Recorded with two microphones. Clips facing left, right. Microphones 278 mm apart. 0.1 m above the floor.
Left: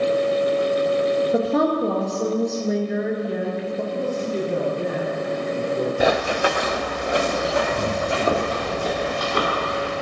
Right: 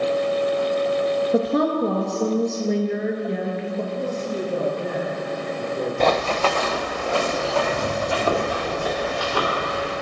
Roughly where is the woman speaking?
Centre.